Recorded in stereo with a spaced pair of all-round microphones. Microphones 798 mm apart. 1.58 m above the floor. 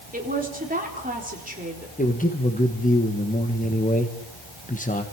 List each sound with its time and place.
0.1 s a woman speaking: 10° right (ahead or behind), 4 m
2.0 s a man speaking: 10° left (ahead or behind), 1.5 m